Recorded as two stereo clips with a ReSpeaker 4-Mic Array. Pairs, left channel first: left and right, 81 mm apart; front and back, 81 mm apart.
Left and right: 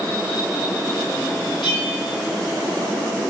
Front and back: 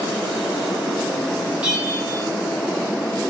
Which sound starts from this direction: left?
A bell, at 1.6 s.